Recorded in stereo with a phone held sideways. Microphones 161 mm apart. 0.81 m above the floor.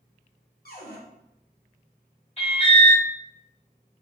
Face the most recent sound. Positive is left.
turn(degrees=40)  # may be behind; listen again after turning